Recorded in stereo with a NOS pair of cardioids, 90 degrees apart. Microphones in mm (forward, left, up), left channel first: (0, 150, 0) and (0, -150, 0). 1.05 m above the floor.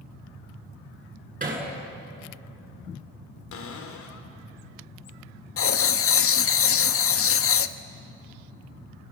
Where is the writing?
45° left, 1.0 m.